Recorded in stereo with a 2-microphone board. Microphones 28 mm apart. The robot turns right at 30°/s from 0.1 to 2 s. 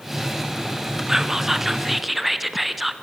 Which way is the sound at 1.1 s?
15° right (ahead or behind).